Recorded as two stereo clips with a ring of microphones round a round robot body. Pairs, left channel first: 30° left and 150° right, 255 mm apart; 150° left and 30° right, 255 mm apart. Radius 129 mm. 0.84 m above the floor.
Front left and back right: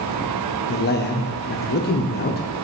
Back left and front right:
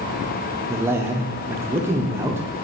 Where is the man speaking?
45° left, 0.7 m.